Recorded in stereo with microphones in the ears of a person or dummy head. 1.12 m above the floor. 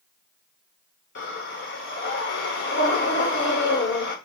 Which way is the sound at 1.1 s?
60° left (ahead or behind).